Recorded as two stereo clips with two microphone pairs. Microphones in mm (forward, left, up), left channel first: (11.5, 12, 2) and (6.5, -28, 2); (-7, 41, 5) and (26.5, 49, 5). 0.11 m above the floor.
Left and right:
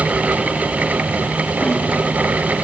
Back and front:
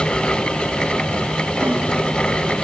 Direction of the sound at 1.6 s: 30° left.